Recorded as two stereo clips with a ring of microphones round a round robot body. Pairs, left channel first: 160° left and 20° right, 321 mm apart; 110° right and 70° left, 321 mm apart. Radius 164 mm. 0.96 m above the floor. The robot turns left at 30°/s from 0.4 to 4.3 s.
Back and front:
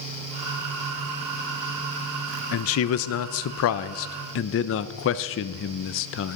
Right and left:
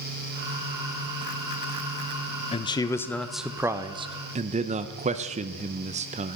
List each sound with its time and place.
2.5 s a man speaking: straight behind, 0.5 m; by 6.4 s 130° left, 0.5 m